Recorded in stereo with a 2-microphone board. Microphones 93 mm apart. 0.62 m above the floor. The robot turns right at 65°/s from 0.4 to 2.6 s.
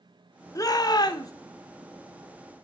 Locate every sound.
0.6 s a shout: 55° left, 0.8 m; by 1.3 s 105° left, 0.8 m